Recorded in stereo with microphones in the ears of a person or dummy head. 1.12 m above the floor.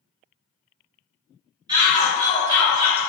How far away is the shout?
About 1.7 m.